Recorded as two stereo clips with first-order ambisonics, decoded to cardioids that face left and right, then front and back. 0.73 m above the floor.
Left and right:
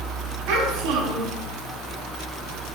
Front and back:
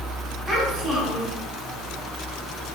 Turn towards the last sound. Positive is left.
turn(degrees=-100)